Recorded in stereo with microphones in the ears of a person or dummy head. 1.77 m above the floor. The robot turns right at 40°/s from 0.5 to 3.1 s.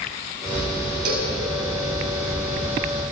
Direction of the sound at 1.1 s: 60° right (ahead or behind).